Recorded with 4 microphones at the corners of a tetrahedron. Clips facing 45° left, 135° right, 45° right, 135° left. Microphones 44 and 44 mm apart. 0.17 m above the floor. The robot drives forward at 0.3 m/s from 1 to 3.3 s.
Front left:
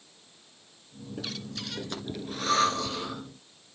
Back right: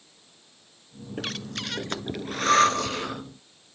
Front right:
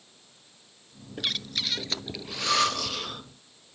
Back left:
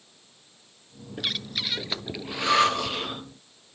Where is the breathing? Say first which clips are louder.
Back right 5 dB, back left 1 dB; 140° right, 0.6 m; by 3.2 s 160° right, 1.1 m.